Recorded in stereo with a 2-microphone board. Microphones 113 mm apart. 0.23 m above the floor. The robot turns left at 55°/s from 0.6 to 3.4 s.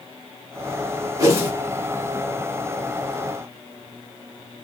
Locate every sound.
1.2 s a whoosh: 30° right (ahead or behind), 1.7 m; by 1.5 s 15° right (ahead or behind), 1.7 m